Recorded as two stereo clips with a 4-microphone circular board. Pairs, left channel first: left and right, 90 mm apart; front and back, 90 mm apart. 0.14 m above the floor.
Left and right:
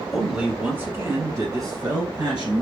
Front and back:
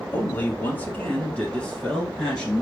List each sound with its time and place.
0.1 s a man speaking: straight ahead, 1.1 m; by 2.6 s 85° right, 1.9 m